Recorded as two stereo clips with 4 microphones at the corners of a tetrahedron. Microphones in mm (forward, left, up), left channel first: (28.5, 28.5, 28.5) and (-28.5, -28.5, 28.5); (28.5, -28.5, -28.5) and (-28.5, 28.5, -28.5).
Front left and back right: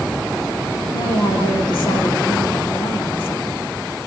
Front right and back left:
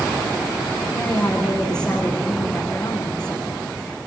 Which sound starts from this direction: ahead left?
A woman speaking, at 0.9 s.